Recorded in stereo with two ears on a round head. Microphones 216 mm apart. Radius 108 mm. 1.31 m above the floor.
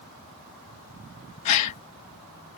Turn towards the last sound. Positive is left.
turn(degrees=85)